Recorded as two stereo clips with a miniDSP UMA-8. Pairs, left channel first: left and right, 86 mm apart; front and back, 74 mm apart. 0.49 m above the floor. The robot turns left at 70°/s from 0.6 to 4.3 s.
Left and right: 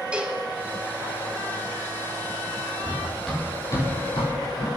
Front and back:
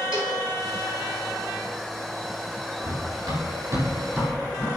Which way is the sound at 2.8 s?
155° right.